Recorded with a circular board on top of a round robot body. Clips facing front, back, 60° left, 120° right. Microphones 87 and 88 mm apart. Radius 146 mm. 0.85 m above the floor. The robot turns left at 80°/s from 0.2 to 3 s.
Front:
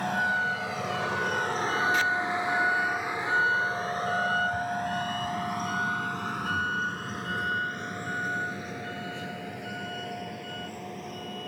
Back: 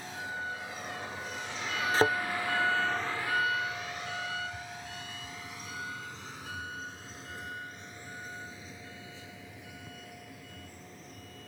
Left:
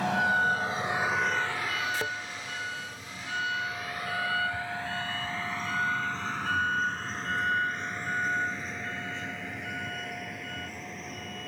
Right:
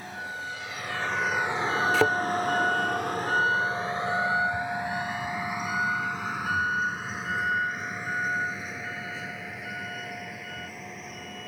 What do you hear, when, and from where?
0.0 s a vehicle: 35° left; by 11.5 s 30° right
1.9 s a thud: 120° right; by 2.2 s 135° right